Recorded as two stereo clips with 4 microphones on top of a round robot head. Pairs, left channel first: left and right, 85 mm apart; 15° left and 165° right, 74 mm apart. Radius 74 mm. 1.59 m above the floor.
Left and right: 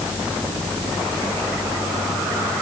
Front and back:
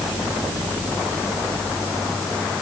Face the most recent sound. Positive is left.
No sound to turn to.